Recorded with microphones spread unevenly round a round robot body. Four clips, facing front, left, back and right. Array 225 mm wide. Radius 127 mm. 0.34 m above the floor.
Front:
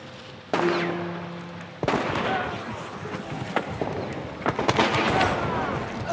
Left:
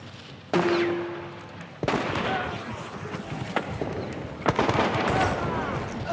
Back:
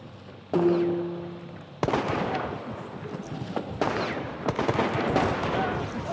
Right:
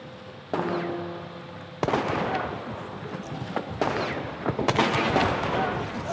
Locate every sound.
0.6 s a piano: 130° left, 10 m